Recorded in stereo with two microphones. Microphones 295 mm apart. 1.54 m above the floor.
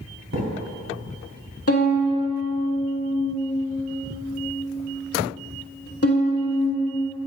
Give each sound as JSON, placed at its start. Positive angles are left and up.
{"t": 0.3, "sound": "a thud", "side_deg": -60, "distance_m": 2.0}
{"t": 1.7, "sound": "a violin", "side_deg": 50, "distance_m": 1.1}